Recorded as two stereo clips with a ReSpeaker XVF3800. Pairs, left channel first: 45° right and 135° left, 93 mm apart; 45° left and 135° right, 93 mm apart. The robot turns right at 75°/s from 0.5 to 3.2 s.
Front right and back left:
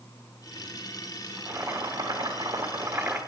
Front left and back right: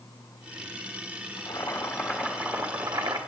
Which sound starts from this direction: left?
Boiling, at 1.4 s.